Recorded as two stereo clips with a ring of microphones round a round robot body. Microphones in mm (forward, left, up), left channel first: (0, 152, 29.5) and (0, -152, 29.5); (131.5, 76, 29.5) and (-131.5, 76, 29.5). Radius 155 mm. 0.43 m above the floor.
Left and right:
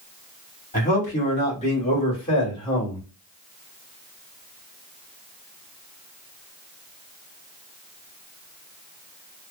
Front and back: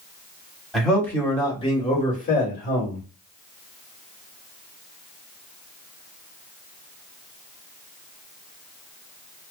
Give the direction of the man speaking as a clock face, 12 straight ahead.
9 o'clock.